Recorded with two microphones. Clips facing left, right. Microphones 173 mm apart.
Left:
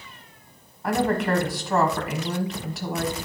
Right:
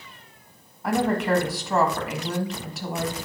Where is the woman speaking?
Centre (ahead or behind), 1.3 m.